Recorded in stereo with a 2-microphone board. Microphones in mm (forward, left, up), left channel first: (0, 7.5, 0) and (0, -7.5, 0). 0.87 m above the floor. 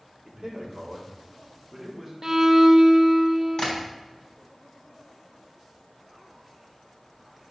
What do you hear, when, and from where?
0.2 s a man speaking: 35° right (ahead or behind), 1.9 m; by 2.1 s 10° right (ahead or behind), 2.5 m
2.2 s a violin: 30° right (ahead or behind), 0.6 m
3.6 s tapping: 55° left (ahead or behind), 3 m